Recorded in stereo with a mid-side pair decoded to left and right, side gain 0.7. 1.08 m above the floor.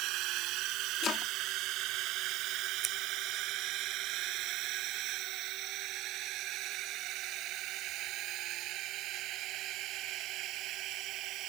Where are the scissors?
35° right.